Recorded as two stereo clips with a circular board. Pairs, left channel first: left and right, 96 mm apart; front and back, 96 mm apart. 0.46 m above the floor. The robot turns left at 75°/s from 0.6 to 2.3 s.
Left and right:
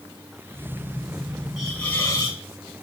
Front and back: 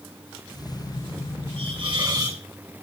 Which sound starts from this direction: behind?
A hiss, at 1.6 s.